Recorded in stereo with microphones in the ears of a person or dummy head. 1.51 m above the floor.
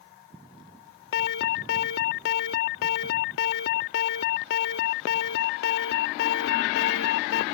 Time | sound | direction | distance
1.1 | an alarm | 65° left (ahead or behind) | ?